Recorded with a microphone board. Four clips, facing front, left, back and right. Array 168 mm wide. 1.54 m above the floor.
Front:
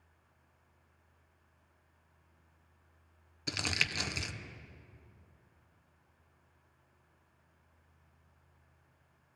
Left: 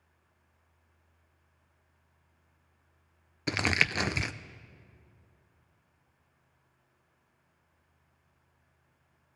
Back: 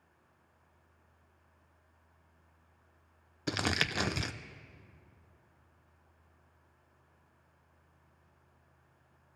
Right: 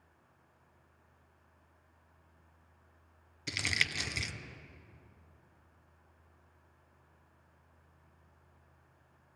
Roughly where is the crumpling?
Behind left.